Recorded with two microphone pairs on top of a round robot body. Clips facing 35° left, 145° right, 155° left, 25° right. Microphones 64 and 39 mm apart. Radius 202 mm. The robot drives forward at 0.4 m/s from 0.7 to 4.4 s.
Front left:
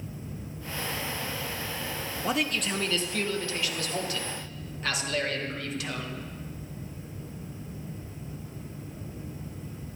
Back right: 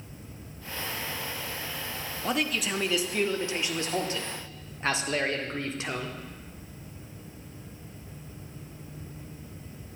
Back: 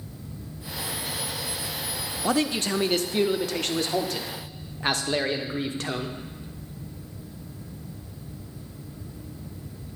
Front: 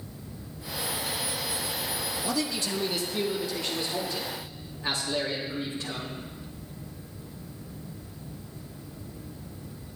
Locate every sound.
2.2 s a man speaking: 125° left, 0.9 m; by 6.2 s 155° left, 1.5 m